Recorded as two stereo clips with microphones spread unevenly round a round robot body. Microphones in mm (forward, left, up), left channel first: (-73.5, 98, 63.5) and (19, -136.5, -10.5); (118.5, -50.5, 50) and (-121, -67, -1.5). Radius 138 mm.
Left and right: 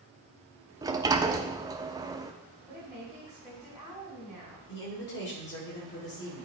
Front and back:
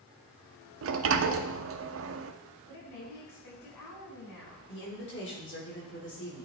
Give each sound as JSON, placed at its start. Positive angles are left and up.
{"t": 0.8, "sound": "a sliding door", "azimuth_deg": -145, "distance_m": 0.6}
{"t": 2.7, "sound": "a woman speaking", "azimuth_deg": 15, "distance_m": 4.5}
{"t": 4.7, "sound": "a woman speaking", "azimuth_deg": 55, "distance_m": 2.5}